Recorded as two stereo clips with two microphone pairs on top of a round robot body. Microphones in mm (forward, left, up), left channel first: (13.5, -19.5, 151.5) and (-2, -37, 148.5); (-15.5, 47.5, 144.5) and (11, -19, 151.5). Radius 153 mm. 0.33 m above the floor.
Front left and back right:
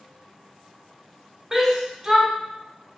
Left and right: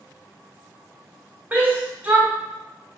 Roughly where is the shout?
Behind right.